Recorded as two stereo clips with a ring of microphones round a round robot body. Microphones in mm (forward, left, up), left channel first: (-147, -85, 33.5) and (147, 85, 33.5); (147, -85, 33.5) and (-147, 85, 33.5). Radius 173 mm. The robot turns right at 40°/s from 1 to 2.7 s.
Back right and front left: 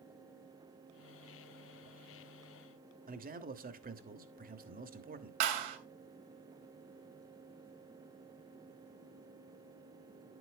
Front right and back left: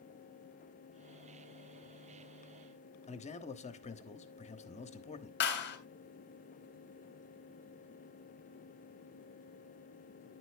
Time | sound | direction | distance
3.1 | a man speaking | 10° left | 1.3 m
5.4 | a clap | 30° left | 3 m